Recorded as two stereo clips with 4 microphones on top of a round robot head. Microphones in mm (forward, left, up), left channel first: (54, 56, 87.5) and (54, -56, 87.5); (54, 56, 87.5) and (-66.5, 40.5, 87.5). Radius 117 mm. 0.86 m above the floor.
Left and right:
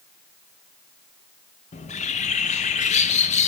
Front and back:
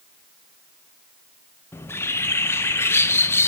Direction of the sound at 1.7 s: 80° left.